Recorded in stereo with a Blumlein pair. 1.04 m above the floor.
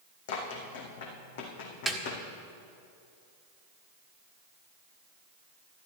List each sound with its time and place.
0.3 s running footsteps: 55° left, 3.5 m
1.9 s a snare drum: 10° right, 1.6 m